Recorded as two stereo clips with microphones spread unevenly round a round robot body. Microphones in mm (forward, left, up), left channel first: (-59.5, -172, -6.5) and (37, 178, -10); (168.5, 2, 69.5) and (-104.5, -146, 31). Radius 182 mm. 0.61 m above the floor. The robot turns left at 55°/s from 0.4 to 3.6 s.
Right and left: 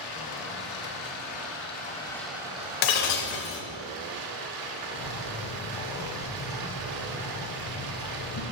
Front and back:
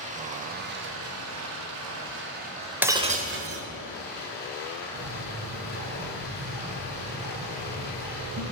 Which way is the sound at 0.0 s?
95° right.